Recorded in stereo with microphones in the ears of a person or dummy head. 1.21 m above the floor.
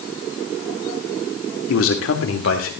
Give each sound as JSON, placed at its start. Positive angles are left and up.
{"t": 1.7, "sound": "a man speaking", "side_deg": 70, "distance_m": 2.5}